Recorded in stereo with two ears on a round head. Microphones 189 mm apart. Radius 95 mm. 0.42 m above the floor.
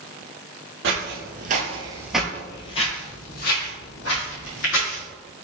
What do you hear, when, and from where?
0.8 s footsteps: 60° right (ahead or behind), 0.9 m; by 5.0 s 65° left (ahead or behind), 1.7 m